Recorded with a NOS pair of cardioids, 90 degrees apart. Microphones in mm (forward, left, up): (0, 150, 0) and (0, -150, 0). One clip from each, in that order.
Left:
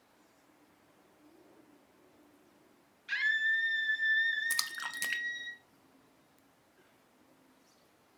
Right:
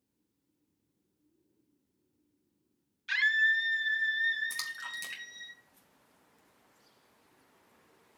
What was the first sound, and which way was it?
A scream, 25° right.